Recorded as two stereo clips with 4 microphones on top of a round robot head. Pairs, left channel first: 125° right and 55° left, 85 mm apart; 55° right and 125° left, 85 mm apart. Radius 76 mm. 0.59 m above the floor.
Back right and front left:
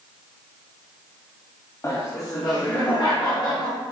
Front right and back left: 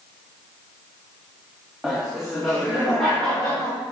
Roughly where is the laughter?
Behind right.